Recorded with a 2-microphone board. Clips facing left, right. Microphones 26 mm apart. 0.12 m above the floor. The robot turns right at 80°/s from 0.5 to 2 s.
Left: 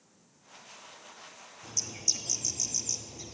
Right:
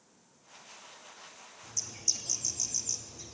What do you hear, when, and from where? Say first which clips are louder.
1.6 s a bird: left 2 dB; 40° left (ahead or behind), 1.2 m; by 3.3 s 15° left (ahead or behind), 1.2 m